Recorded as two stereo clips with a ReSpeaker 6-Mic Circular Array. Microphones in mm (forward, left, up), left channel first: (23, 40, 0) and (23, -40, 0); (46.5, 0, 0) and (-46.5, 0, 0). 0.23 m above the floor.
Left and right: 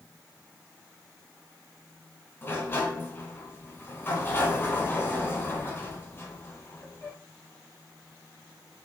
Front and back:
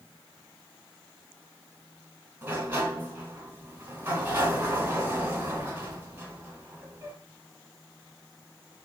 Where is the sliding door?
125° left, 1.2 m.